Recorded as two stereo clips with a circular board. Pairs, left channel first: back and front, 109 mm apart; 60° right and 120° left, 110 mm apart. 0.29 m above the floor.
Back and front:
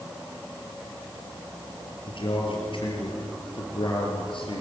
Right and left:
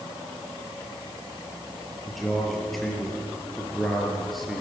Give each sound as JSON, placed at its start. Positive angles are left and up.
{"t": 2.1, "sound": "a man speaking", "azimuth_deg": -150, "distance_m": 5.0}